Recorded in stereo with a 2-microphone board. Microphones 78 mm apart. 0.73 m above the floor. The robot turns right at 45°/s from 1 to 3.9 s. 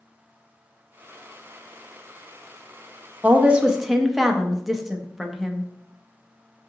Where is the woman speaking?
25° right (ahead or behind), 0.5 m; by 5.7 s 5° right (ahead or behind), 0.5 m.